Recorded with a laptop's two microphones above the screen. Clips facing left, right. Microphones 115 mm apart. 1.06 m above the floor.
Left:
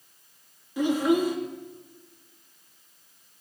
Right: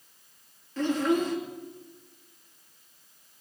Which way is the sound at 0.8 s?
10° left (ahead or behind).